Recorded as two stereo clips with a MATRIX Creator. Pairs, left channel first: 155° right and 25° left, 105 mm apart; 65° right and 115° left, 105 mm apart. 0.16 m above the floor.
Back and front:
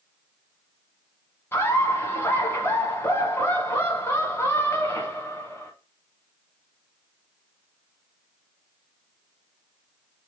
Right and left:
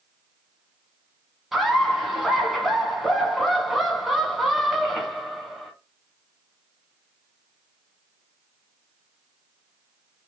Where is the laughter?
160° right, 1.1 m.